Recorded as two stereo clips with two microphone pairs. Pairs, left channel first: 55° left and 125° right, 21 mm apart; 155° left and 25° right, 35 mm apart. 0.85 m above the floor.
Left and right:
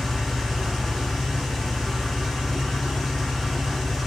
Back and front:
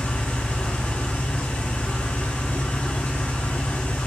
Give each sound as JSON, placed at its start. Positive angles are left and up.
{"t": 0.0, "sound": "an engine running", "azimuth_deg": 150, "distance_m": 1.8}